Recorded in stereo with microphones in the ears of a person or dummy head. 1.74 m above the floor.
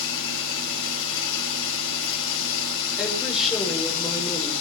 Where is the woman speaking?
5° right (ahead or behind), 6.5 m.